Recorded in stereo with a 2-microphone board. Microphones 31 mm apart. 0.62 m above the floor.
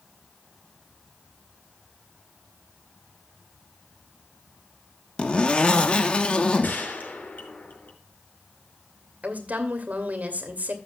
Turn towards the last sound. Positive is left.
turn(degrees=-55)  # may be behind; listen again after turning